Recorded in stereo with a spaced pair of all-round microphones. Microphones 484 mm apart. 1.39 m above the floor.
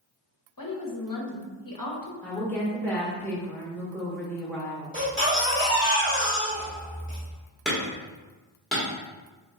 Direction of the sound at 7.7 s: Centre (ahead or behind).